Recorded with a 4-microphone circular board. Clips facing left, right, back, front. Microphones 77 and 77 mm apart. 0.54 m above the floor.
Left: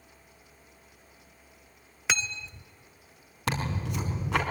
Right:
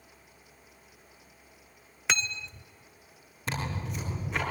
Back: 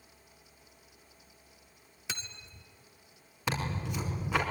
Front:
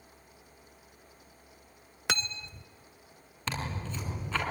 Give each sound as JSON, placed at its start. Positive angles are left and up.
{"t": 2.1, "sound": "cutlery clinking", "azimuth_deg": 0, "distance_m": 0.5}
{"t": 3.5, "sound": "tearing paper", "azimuth_deg": 100, "distance_m": 5.0}